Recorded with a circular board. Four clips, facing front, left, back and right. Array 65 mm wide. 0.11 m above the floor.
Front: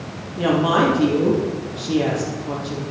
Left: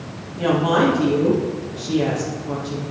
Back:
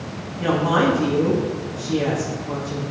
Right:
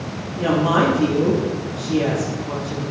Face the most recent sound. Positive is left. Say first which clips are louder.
# even, front 2 dB
turn(degrees=10)